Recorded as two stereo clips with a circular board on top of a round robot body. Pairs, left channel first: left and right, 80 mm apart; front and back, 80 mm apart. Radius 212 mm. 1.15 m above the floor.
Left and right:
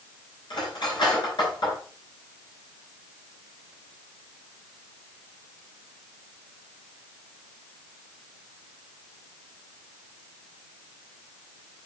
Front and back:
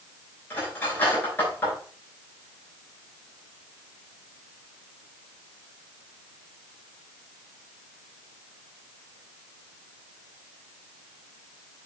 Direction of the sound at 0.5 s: 65° left.